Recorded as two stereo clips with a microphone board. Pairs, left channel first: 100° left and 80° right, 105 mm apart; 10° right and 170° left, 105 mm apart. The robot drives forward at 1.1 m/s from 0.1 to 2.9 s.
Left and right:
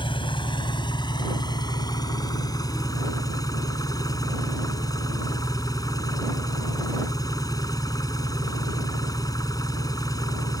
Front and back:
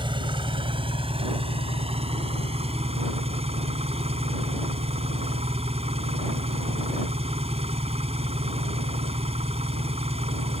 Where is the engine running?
135° left; by 10.6 s 155° left.